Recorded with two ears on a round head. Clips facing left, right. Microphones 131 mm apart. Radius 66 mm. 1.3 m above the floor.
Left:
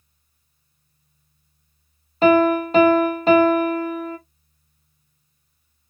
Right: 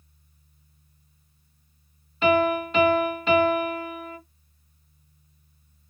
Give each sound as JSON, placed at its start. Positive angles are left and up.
{"t": 2.2, "sound": "a piano", "side_deg": 35, "distance_m": 0.7}